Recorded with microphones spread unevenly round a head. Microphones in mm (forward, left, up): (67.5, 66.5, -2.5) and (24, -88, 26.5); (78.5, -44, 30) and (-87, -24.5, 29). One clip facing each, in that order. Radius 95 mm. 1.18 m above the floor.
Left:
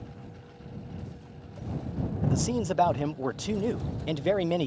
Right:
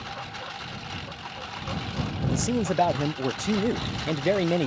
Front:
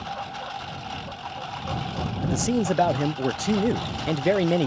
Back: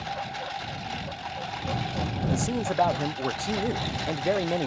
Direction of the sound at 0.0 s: 110° right.